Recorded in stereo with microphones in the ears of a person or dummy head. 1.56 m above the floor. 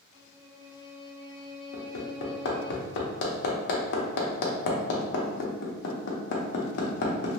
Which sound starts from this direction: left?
Hammering, at 1.7 s.